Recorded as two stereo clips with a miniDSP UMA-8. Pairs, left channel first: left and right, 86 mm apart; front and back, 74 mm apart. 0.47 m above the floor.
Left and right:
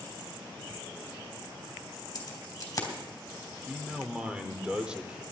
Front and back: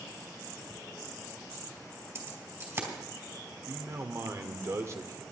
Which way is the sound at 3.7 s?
165° right.